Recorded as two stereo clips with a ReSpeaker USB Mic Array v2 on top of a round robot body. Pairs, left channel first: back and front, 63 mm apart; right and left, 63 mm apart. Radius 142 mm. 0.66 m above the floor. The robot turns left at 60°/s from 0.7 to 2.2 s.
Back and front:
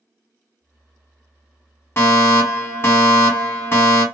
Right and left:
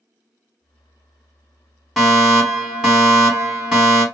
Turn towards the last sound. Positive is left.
turn(degrees=165)